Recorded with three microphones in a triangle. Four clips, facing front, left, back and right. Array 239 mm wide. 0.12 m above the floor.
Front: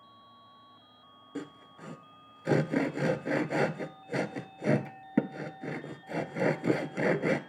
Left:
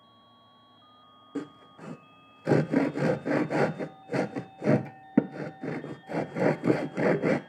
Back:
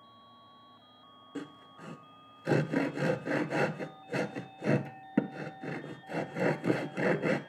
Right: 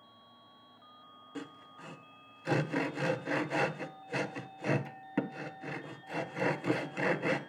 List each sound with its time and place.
1.4 s sawing: 85° left, 0.6 m